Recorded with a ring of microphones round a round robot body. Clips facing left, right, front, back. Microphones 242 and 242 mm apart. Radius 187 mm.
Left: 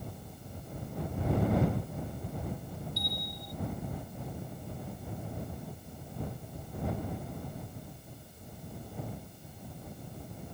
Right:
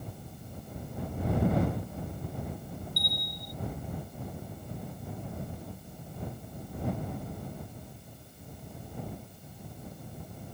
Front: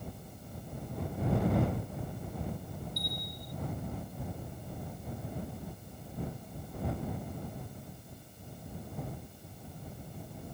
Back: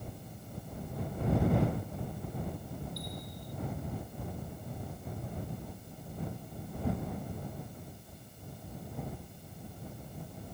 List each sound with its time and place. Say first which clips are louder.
3.0 s a bell: left 1 dB, even; 15° right